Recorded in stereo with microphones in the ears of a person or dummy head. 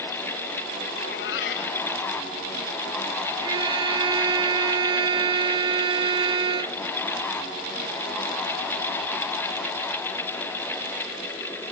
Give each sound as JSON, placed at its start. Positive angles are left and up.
{"t": 1.0, "sound": "a cat meowing", "side_deg": 65}
{"t": 3.4, "sound": "a violin", "side_deg": -25}